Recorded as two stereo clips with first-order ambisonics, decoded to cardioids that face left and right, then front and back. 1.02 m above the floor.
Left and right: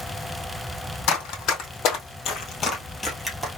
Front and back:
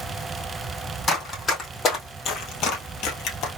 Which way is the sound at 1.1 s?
70° left.